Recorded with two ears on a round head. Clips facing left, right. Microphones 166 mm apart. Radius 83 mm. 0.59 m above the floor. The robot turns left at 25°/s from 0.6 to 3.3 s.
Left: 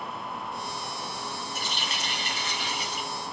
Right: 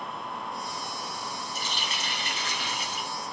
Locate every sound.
1.6 s a running tap: 45° left, 2 m; by 3.1 s 5° left, 2 m